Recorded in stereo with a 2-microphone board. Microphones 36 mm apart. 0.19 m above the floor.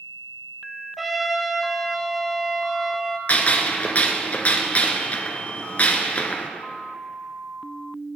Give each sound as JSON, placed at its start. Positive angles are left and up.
{"t": 1.0, "sound": "a trumpet", "side_deg": -5, "distance_m": 0.7}
{"t": 3.3, "sound": "a gunshot", "side_deg": 50, "distance_m": 0.8}